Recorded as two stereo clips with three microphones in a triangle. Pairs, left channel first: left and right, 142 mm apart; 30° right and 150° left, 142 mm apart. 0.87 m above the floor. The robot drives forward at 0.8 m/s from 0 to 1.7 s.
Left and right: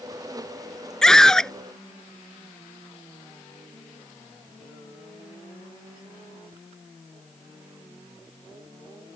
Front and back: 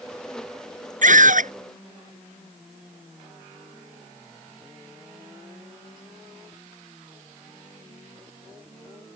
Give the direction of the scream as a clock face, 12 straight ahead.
6 o'clock.